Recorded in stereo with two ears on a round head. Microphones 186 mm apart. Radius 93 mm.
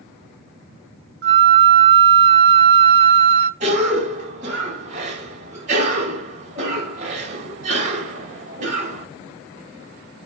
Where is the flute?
55° right (ahead or behind), 0.7 m.